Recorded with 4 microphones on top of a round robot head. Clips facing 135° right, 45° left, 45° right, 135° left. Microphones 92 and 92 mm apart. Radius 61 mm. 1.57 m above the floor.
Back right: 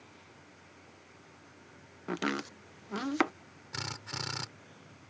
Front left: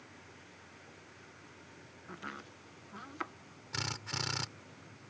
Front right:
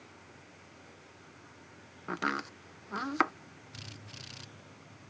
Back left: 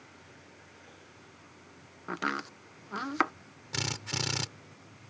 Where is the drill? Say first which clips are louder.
Front left 1 dB, back left 17 dB; 135° left.